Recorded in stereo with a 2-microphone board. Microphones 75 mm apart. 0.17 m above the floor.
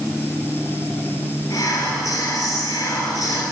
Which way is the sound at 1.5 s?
50° left (ahead or behind).